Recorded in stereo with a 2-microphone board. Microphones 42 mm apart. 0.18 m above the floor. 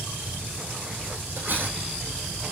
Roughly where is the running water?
Centre.